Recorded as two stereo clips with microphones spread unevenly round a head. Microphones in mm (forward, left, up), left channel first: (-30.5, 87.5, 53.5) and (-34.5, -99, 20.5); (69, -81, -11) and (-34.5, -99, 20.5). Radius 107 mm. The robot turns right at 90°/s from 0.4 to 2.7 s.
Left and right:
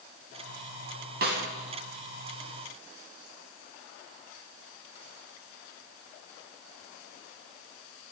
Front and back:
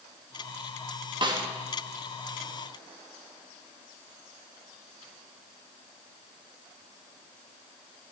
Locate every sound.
1.2 s a snare drum: 130° right, 2.5 m; by 1.4 s 110° right, 2.5 m